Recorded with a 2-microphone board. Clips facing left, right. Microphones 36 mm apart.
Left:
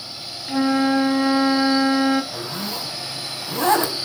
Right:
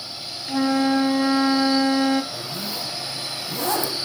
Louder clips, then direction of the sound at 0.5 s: Left 1 dB; 10° left (ahead or behind).